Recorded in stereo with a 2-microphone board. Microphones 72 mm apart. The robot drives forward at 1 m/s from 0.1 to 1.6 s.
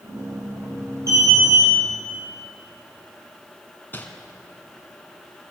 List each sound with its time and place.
1.1 s an alarm: 45° right (ahead or behind), 4 m; by 1.7 s 50° right (ahead or behind), 4 m
3.9 s crumpling: 25° left (ahead or behind), 2 m